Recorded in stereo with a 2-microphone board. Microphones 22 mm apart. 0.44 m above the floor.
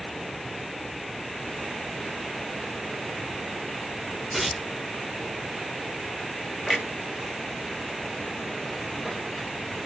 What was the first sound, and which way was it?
Tearing paper, centre (ahead or behind).